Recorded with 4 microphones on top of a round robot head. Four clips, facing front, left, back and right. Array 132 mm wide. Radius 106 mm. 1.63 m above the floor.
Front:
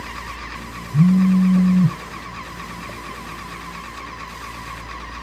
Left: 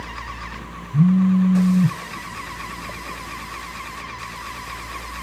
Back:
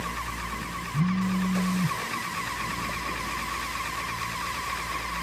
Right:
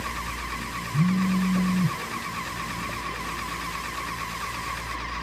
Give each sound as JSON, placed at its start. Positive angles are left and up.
{"t": 0.9, "sound": "a phone buzzing", "azimuth_deg": 35}